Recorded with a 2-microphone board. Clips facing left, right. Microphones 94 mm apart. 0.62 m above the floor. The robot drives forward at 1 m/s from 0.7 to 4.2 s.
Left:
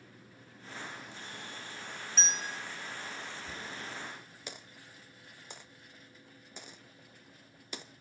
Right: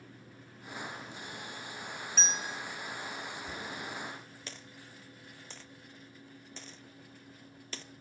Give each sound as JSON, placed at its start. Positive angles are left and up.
{"t": 2.2, "sound": "a bell", "side_deg": 0, "distance_m": 1.5}
{"t": 3.5, "sound": "a dropped coin", "side_deg": 10, "distance_m": 1.1}